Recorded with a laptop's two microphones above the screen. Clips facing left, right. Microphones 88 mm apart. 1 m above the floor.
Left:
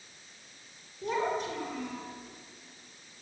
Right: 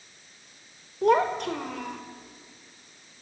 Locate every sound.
1.0 s a child speaking: 70° right (ahead or behind), 2.5 m